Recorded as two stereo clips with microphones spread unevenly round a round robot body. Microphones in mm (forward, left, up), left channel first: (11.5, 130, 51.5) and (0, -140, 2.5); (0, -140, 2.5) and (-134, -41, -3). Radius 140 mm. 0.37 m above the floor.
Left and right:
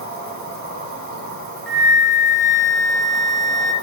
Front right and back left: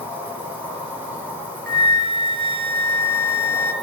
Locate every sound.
0.0 s an insect: 140° right, 2.5 m
1.7 s a flute: straight behind, 0.9 m